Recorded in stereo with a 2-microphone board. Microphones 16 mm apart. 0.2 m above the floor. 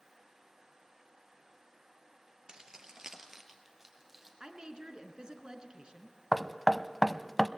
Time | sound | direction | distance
2.5 | keys jangling | 55° right (ahead or behind) | 2 m
4.4 | a woman speaking | 55° right (ahead or behind) | 2.5 m
6.3 | knocking | 10° left (ahead or behind) | 0.7 m